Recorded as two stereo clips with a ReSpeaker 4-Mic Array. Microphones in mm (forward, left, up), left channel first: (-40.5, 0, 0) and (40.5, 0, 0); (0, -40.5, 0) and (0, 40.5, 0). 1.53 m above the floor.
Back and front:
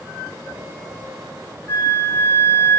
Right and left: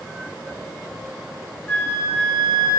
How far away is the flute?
About 0.7 m.